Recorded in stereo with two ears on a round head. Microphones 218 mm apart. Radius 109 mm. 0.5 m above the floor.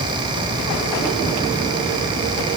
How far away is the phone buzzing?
No phone buzzing in this recording.